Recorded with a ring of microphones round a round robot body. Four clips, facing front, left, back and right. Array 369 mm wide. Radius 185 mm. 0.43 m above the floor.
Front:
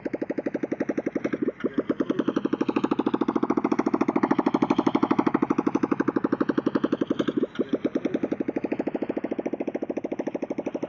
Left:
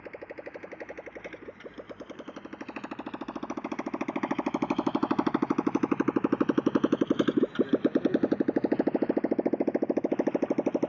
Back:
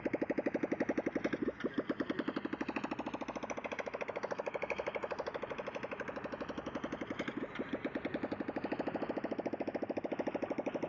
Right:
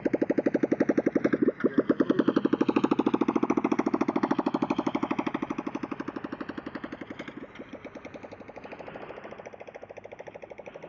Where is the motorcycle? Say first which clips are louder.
Right 16 dB, front 7 dB; 70° right; by 10.9 s 65° left.